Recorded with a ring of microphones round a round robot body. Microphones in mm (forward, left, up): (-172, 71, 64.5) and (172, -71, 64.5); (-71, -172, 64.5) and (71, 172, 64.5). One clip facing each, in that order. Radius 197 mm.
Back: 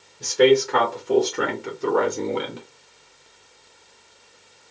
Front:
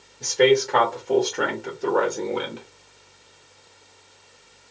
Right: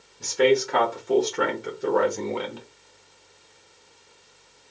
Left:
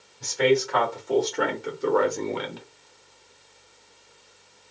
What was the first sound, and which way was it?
A man speaking, 135° right.